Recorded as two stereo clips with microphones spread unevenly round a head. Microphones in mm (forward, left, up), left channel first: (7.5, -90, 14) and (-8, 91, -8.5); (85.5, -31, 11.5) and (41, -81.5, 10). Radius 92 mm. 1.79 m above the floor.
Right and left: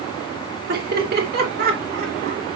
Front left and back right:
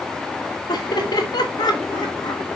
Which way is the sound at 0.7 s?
55° left.